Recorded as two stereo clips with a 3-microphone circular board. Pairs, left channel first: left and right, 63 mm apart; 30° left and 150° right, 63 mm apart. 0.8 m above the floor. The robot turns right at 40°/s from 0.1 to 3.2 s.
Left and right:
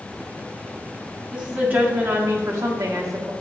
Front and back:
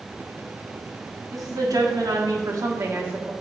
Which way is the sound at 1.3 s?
165° right.